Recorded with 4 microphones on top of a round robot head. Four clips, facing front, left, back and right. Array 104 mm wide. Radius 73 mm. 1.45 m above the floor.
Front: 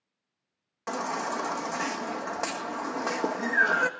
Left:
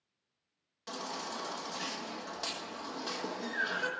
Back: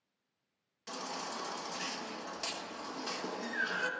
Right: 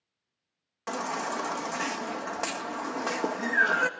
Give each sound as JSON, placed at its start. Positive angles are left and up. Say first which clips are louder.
{"t": 0.9, "sound": "a baby crying", "louder": "right 9 dB, front 11 dB", "azimuth_deg": -40, "distance_m": 1.4}